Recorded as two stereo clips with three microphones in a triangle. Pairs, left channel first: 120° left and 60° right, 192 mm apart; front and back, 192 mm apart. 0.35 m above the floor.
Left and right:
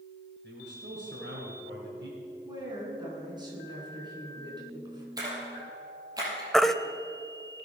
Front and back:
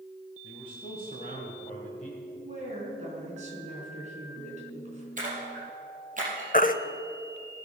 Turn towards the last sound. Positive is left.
turn(degrees=30)